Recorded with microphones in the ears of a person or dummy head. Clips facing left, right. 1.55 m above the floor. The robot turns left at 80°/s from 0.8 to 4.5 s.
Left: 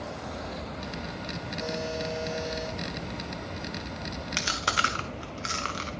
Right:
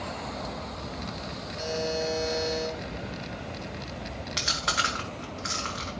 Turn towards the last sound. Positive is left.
turn(degrees=50)  # may be behind; listen again after turning